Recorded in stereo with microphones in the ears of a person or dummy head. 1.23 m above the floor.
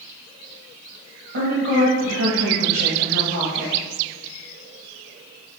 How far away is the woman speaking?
About 1.0 m.